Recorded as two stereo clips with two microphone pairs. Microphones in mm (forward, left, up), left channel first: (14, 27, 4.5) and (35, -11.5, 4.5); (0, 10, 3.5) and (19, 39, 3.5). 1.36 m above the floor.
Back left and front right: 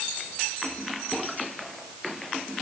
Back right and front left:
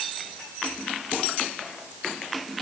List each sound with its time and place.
Only background noise.